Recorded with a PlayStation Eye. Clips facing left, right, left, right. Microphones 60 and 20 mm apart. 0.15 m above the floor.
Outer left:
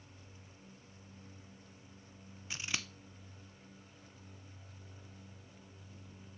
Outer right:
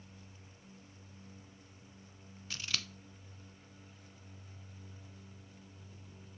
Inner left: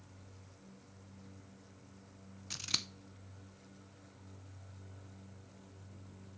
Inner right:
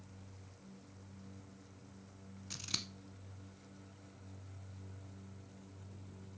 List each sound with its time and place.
2.5 s scissors: 20° left (ahead or behind), 0.7 m